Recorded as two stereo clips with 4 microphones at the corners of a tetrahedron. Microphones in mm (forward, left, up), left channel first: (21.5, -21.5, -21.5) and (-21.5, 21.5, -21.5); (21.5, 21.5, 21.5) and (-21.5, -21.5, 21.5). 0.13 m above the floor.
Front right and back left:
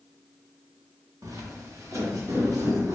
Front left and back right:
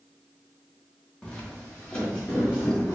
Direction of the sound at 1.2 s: 120° left.